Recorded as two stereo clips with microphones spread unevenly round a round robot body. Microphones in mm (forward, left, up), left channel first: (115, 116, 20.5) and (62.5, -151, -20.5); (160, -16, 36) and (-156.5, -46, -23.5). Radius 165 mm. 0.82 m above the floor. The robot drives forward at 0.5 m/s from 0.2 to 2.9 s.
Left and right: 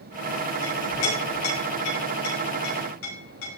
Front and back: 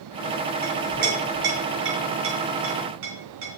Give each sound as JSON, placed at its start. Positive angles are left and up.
{"t": 0.6, "sound": "a clink", "azimuth_deg": 120, "distance_m": 4.0}